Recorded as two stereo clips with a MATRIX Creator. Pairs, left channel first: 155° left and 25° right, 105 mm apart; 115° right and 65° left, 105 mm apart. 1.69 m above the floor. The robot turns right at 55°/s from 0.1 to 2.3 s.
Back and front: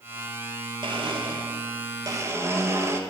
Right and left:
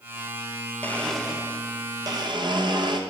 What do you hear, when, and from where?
0.8 s a blender: 45° right, 1.2 m; by 3.0 s 35° left, 1.2 m